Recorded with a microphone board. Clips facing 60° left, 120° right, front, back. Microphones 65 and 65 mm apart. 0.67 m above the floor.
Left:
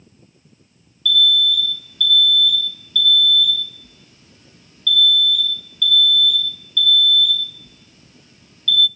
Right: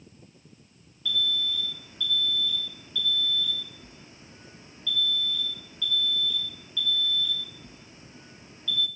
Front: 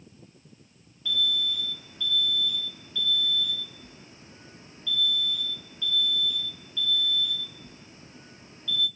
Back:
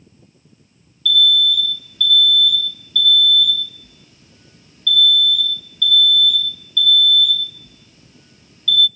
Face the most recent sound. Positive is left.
turn(degrees=-60)